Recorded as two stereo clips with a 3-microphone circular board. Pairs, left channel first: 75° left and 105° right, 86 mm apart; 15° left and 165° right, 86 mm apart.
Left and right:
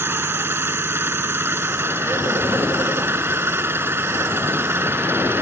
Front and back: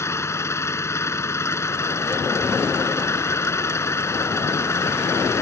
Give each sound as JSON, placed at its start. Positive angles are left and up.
{"t": 0.0, "sound": "an engine running", "azimuth_deg": -45}